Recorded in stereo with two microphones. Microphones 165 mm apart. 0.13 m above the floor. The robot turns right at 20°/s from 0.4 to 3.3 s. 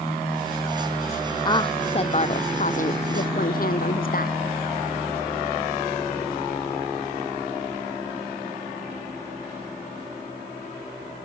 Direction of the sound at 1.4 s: 25° left.